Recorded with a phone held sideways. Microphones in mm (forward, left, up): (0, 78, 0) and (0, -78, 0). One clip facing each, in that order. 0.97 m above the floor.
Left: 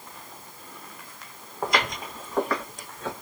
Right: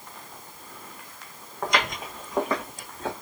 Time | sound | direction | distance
1.6 | footsteps | 5° left (ahead or behind) | 2 m